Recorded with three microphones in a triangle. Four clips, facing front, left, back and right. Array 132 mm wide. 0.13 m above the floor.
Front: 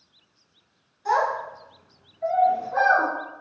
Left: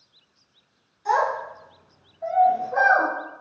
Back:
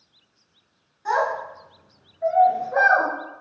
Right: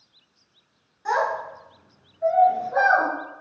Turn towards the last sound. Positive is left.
turn(degrees=-170)